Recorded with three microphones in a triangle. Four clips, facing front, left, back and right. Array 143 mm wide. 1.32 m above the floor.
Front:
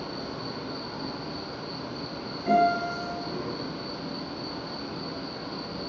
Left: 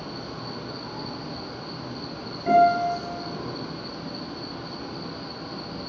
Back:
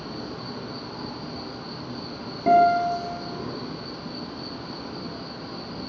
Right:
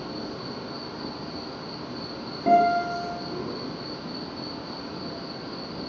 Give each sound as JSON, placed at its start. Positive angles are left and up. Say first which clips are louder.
{"t": 0.0, "sound": "an insect", "louder": "right 1 dB, even", "azimuth_deg": 45, "distance_m": 3.5}
{"t": 2.5, "sound": "a guitar", "louder": "left 1 dB, back 5 dB", "azimuth_deg": -150, "distance_m": 2.5}